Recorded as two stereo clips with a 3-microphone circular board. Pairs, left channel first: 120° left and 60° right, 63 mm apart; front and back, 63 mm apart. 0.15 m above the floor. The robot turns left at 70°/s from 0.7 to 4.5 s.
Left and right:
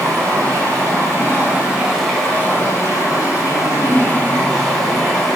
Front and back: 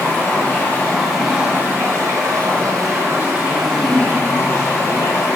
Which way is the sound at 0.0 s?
60° right.